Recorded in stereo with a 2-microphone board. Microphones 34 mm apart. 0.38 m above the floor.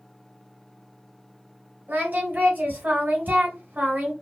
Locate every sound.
1.9 s singing: 55° right (ahead or behind), 2 m